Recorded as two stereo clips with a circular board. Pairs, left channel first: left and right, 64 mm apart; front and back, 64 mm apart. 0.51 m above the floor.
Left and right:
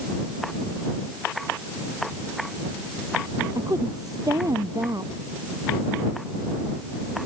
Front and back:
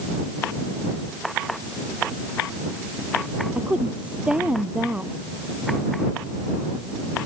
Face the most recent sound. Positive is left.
turn(degrees=-110)